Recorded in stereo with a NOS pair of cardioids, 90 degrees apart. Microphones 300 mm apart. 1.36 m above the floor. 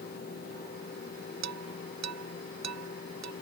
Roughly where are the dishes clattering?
Ahead right.